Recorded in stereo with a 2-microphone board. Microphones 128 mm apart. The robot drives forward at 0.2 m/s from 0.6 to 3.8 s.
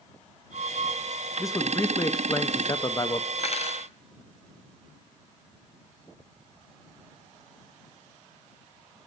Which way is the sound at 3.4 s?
50° left (ahead or behind).